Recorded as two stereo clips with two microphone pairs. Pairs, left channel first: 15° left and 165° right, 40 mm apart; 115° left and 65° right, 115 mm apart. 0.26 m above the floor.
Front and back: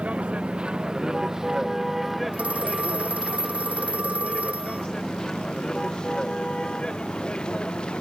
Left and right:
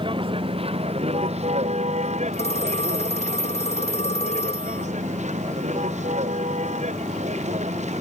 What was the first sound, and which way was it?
A vehicle, 110° right.